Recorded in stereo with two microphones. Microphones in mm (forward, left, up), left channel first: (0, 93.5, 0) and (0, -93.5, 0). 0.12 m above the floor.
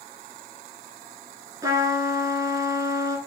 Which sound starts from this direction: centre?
A trumpet, at 1.6 s.